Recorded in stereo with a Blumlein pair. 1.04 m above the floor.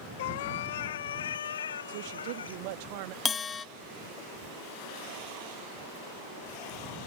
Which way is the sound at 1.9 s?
50° right.